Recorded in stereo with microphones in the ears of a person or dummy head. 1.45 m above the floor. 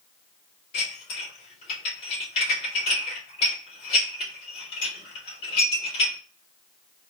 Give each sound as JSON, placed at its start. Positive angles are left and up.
{"t": 0.7, "sound": "dishes clattering", "side_deg": 35, "distance_m": 2.0}